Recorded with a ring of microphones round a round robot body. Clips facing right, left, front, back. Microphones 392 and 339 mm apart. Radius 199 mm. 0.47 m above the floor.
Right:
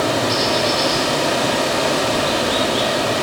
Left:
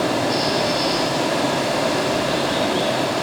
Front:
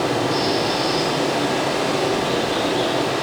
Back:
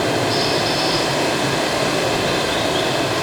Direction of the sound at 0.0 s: 110° right.